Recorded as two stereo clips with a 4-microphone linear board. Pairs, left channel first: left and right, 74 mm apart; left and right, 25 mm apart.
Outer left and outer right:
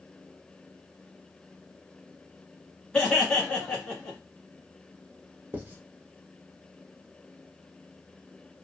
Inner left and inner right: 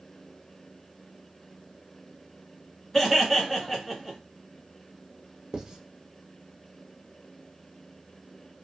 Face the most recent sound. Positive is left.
turn(degrees=-25)  # may be behind; listen again after turning